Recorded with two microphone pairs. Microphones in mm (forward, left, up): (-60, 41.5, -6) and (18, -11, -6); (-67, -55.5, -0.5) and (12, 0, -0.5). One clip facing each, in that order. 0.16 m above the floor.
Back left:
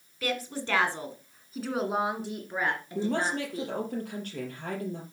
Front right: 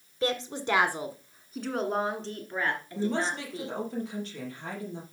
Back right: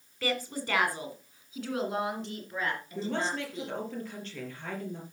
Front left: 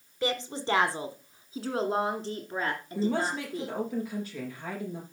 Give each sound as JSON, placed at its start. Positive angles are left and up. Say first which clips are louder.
{"t": 0.2, "sound": "a woman speaking", "louder": "front right 3 dB, front left 2 dB", "azimuth_deg": -10, "distance_m": 1.4}
{"t": 3.0, "sound": "a woman speaking", "louder": "back left 1 dB, front left 5 dB", "azimuth_deg": 115, "distance_m": 4.5}